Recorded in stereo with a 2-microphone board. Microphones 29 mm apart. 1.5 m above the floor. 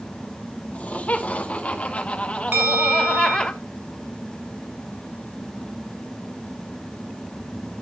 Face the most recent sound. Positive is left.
turn(degrees=-85)